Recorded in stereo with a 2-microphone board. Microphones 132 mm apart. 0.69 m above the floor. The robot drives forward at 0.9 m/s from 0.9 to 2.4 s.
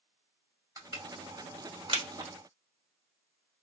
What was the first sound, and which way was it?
Crushing, 25° right (ahead or behind).